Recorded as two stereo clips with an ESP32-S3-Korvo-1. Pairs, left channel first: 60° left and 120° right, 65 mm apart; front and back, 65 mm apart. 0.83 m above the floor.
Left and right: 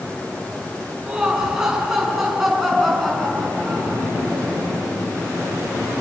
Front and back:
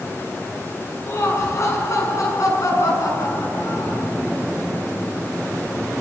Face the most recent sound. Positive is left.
turn(degrees=-25)